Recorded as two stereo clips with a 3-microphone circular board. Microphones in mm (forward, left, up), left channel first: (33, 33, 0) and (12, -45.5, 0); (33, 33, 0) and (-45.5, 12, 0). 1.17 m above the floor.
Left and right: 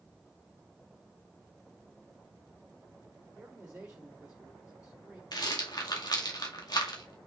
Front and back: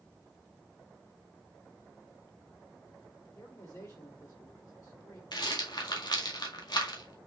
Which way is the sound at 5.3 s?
45° left.